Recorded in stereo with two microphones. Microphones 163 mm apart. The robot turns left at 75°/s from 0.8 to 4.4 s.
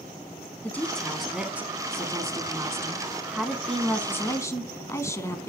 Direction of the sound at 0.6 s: 10° left (ahead or behind).